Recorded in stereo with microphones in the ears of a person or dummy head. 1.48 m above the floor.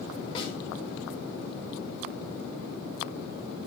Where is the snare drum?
30° left (ahead or behind), 6 m.